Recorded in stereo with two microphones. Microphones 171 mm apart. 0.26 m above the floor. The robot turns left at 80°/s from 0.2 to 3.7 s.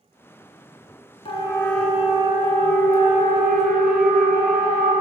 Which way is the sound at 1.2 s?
35° left (ahead or behind).